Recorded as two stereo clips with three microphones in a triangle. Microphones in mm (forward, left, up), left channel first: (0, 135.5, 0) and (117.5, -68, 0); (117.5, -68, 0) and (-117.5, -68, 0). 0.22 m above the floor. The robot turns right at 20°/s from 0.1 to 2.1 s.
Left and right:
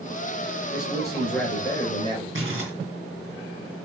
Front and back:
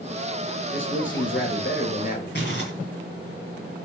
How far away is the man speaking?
About 4 m.